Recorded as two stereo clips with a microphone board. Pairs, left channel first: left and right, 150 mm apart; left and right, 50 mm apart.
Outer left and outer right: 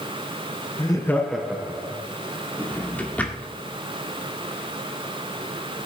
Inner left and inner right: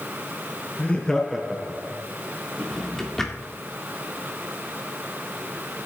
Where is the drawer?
10° left (ahead or behind), 1.8 m.